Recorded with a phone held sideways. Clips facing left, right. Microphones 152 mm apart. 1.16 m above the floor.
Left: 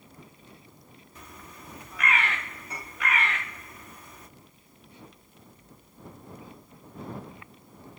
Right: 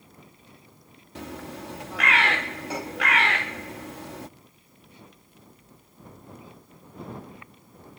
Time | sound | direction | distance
1.1 | a bird | 80° right | ?